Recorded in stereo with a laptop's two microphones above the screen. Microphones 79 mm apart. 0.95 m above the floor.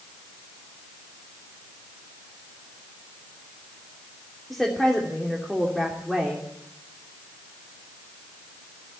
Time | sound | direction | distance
4.5 | a woman speaking | centre (ahead or behind) | 3 m